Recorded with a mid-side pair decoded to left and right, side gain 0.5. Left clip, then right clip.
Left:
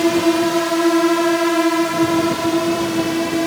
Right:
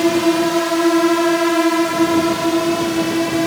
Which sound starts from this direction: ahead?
A drone, at 0.0 s.